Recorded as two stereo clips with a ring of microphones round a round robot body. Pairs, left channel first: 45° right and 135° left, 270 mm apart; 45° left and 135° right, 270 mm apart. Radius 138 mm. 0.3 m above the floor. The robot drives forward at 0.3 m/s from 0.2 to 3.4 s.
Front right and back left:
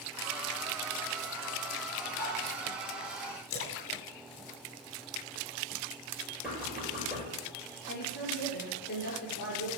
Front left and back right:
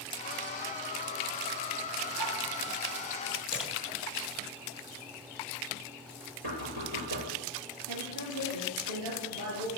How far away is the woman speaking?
About 5 m.